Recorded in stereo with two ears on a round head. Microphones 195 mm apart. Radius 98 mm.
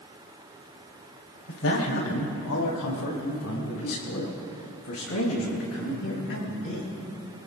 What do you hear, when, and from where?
1.5 s a man speaking: 70° left (ahead or behind), 4.5 m; by 6.9 s 65° left (ahead or behind), 10 m